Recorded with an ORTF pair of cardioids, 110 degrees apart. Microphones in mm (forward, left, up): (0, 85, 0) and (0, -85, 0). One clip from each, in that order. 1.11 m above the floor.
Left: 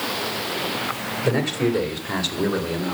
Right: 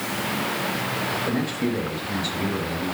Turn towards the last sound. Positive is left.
turn(degrees=75)